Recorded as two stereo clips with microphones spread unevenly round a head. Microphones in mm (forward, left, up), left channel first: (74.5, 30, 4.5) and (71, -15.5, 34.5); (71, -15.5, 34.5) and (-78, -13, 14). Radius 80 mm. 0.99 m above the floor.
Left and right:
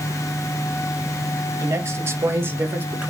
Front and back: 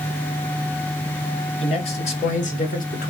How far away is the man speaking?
About 1.8 m.